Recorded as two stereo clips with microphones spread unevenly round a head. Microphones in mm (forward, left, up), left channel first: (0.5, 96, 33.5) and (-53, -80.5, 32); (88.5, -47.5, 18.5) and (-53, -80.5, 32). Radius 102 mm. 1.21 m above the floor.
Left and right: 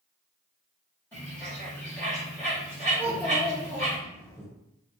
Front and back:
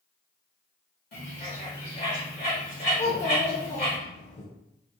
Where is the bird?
5° right, 1.8 m.